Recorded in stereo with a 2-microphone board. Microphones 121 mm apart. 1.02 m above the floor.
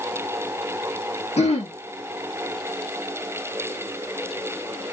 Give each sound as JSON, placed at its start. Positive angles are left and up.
{"t": 1.4, "sound": "throat clearing", "side_deg": 60, "distance_m": 1.4}